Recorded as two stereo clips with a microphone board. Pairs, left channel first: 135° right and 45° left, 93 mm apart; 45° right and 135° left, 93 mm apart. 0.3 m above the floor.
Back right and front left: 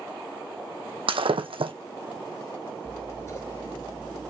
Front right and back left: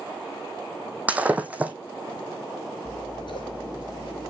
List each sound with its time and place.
1.1 s breaking glass: 60° left, 1.3 m
2.9 s scissors: 75° right, 4.5 m